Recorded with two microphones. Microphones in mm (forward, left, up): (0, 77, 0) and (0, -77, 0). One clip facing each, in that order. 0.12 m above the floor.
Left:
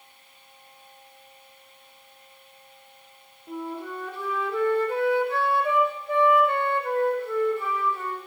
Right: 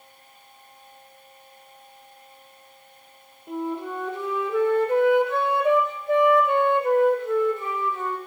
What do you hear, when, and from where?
3.5 s a flute: 20° right (ahead or behind), 1.9 m